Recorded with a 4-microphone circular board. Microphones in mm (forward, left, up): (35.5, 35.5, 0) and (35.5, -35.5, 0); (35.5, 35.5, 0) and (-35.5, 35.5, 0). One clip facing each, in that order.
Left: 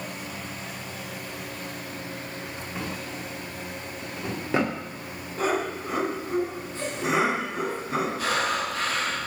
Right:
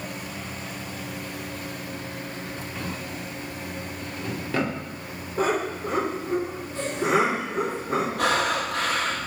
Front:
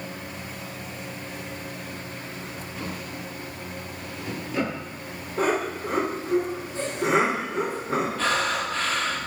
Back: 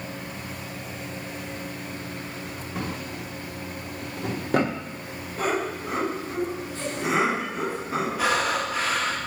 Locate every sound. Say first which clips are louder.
2.8 s a drawer: left 1 dB, back 3 dB; 155° left, 1.2 m
5.4 s laughter: right 2 dB, front 2 dB; 35° right, 3.5 m
8.2 s breathing: right 3 dB, back 1 dB; 100° right, 1.2 m